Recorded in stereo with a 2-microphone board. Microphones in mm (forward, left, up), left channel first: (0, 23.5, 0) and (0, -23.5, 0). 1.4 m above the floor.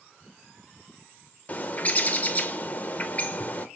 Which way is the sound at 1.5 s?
35° left (ahead or behind).